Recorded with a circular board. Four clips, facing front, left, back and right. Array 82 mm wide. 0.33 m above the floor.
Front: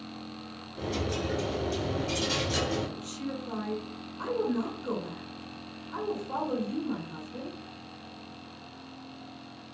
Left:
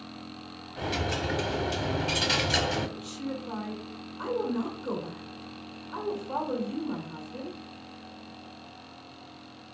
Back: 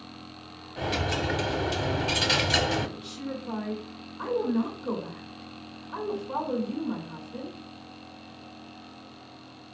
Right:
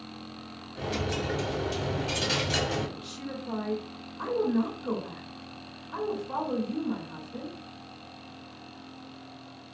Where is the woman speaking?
145° right, 1.4 m.